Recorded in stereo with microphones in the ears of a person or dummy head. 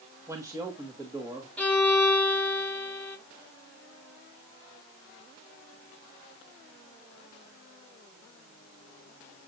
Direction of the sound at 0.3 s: 10° right (ahead or behind).